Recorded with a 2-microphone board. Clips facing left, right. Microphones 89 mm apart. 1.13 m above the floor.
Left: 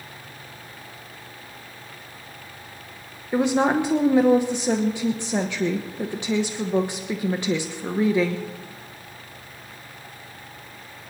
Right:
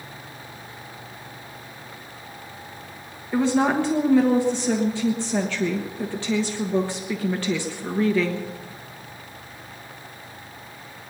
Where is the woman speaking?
15° left (ahead or behind), 1.0 m.